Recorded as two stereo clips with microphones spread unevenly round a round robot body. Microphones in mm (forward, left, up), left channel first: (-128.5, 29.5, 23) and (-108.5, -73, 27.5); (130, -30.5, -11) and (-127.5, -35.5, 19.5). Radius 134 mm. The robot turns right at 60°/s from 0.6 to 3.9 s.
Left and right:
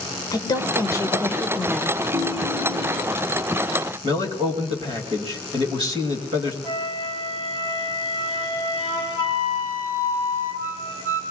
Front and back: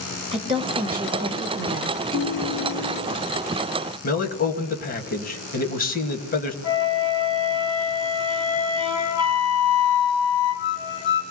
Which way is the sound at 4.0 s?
45° right.